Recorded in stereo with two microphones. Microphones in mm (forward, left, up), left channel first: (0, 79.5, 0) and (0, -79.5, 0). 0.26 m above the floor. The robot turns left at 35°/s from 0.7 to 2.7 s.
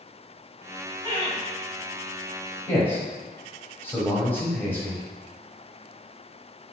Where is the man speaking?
10° left (ahead or behind), 1.2 m.